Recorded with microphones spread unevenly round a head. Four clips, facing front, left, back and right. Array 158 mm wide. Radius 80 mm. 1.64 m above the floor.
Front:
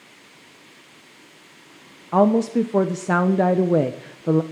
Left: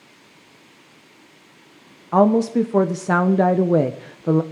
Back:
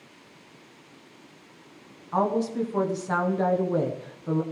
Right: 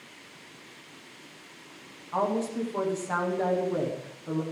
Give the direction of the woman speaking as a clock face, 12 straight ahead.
10 o'clock.